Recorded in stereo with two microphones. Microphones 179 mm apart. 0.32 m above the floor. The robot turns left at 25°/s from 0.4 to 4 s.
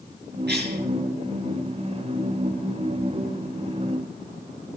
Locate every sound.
0.5 s a cough: 70° right (ahead or behind), 6 m; by 0.8 s 65° right (ahead or behind), 6 m